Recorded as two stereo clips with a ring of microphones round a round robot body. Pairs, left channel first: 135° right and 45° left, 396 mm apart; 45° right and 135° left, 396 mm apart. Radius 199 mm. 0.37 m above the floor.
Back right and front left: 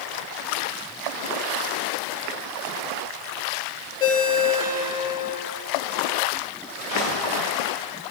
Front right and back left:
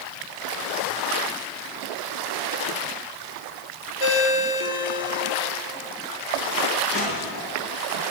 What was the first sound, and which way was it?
A ringtone, 55° right.